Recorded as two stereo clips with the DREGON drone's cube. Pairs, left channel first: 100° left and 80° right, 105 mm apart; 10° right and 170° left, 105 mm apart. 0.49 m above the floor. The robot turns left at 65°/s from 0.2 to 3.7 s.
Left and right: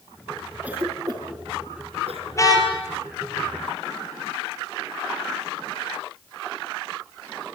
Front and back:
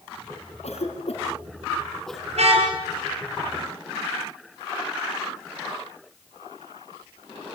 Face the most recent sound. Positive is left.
turn(degrees=75)